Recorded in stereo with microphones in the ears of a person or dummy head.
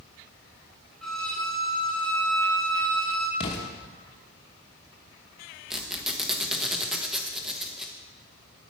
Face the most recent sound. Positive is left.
turn(degrees=0)  # may be behind; listen again after turning